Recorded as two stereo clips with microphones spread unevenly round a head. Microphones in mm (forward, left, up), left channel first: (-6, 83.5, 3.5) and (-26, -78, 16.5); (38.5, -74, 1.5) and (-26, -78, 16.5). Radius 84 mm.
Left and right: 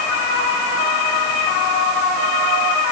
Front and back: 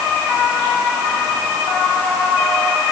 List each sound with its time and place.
Only background noise.